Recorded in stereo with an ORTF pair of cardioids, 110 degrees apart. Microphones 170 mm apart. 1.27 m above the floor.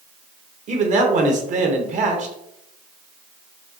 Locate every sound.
0.7 s a man speaking: 50° right, 1.2 m